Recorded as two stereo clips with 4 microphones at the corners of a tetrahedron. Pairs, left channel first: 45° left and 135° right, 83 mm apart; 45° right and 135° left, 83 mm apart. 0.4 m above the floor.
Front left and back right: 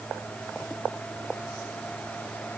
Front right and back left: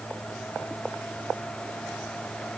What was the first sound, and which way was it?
Only background noise.